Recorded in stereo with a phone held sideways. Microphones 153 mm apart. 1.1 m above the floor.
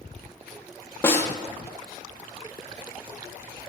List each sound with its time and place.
1.0 s a snare drum: 15° left (ahead or behind), 0.7 m